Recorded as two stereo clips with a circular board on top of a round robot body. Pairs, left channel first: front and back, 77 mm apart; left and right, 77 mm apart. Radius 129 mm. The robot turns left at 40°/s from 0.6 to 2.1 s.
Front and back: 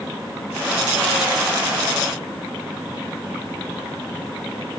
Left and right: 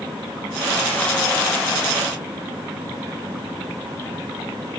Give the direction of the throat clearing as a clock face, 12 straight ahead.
I don't hear throat clearing.